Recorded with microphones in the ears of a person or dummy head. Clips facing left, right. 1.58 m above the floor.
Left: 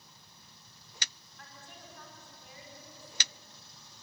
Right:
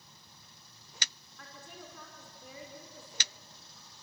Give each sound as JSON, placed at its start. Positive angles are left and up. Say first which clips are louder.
{"t": 1.4, "sound": "a woman speaking", "louder": "right 3 dB", "side_deg": -90, "distance_m": 6.0}